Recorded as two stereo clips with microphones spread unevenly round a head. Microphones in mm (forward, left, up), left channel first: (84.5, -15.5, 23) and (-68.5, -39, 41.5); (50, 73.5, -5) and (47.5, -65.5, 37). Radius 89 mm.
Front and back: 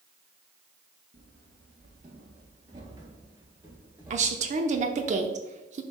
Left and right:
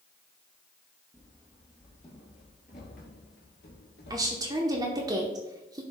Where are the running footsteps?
175° right, 1.6 m; by 5.1 s 100° left, 2 m.